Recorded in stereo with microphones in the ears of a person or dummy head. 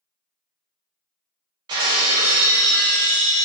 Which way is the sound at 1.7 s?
25° right (ahead or behind).